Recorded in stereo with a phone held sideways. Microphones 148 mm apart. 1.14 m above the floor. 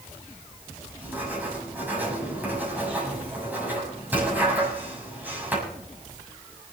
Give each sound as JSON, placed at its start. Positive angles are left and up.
{"t": 1.0, "sound": "writing", "side_deg": -10, "distance_m": 7.0}